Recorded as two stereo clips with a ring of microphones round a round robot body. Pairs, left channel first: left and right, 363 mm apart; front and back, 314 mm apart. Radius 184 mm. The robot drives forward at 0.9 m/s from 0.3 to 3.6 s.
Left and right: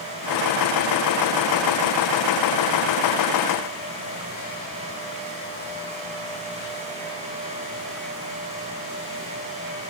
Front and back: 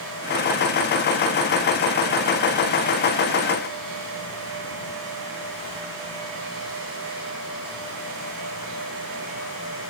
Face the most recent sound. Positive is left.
No sound to turn to.